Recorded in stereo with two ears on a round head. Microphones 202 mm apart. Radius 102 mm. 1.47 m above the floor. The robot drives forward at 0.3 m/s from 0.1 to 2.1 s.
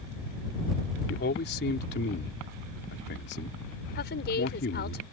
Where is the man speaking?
40° left (ahead or behind); by 5.0 s 45° left (ahead or behind).